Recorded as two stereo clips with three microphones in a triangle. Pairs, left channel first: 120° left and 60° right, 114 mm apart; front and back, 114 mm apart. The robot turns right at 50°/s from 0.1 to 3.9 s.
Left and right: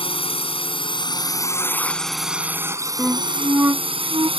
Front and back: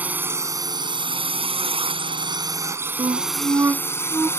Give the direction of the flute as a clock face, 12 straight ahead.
5 o'clock.